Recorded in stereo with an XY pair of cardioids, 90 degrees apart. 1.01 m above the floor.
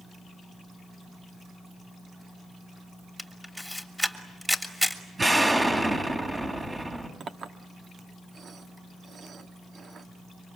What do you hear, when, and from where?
3.2 s a camera shutter: straight ahead, 3 m
5.2 s an explosion: 20° right, 3.5 m
7.2 s a clink: 55° right, 1.5 m